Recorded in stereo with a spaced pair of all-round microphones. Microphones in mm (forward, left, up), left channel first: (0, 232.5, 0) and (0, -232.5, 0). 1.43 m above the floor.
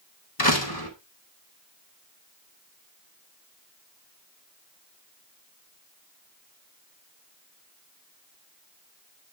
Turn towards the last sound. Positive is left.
turn(degrees=50)  # may be behind; listen again after turning